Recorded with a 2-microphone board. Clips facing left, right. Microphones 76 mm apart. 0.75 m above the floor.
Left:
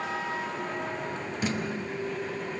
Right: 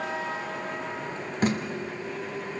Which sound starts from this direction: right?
Tape being pulled, at 1.4 s.